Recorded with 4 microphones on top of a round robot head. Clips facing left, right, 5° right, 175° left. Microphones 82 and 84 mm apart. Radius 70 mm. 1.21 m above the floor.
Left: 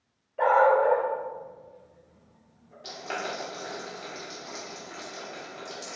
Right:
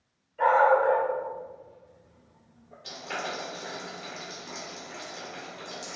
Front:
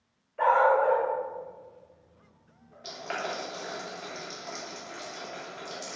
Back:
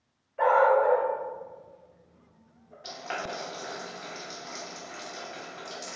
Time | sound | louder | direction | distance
0.4 | a dog barking | even, back 1 dB | 95° left | 1.4 m
2.8 | boiling | left 1 dB, front 1 dB | 85° left | 1.3 m